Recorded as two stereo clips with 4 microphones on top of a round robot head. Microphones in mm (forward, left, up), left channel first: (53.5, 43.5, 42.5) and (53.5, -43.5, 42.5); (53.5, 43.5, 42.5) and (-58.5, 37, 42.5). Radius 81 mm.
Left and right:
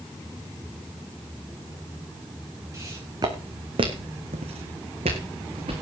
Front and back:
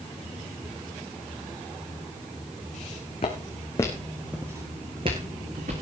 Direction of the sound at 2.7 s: 35° right.